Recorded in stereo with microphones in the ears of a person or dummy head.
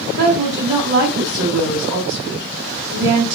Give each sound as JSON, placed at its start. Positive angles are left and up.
{"t": 0.2, "sound": "a woman speaking", "side_deg": -80, "distance_m": 1.3}